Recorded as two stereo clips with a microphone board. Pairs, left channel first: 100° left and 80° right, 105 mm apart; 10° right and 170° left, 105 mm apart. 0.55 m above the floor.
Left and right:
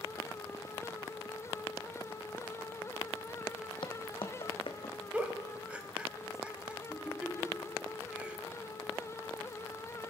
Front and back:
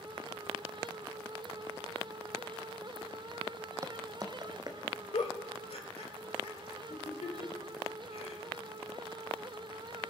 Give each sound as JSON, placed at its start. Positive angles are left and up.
{"t": 3.8, "sound": "footsteps", "azimuth_deg": 120, "distance_m": 0.9}
{"t": 5.1, "sound": "a giggle", "azimuth_deg": 0, "distance_m": 1.2}